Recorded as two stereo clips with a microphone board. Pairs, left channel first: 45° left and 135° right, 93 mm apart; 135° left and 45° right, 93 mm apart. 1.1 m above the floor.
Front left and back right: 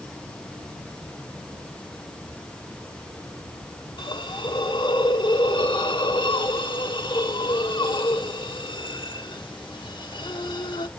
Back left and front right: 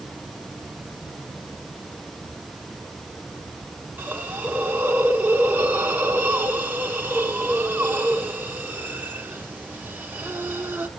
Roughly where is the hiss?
Ahead left.